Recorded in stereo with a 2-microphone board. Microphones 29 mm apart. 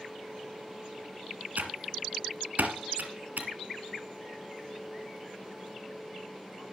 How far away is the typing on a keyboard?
About 3 m.